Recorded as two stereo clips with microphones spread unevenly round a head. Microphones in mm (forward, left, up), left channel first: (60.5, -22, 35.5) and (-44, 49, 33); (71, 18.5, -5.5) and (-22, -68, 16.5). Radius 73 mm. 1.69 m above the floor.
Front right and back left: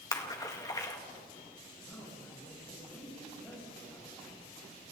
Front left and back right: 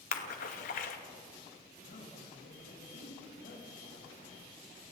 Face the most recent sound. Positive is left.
turn(degrees=40)